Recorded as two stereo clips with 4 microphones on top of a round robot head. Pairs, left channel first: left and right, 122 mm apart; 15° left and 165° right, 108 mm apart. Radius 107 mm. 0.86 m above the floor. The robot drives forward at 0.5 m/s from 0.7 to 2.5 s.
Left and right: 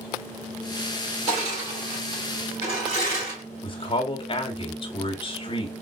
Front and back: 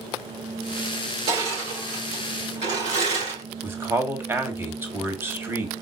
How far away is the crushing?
About 3 m.